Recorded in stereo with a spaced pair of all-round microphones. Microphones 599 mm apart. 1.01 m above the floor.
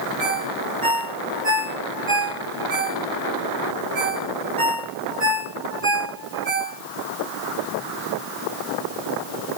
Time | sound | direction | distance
0.2 | a ringtone | 35° right (ahead or behind) | 7.5 m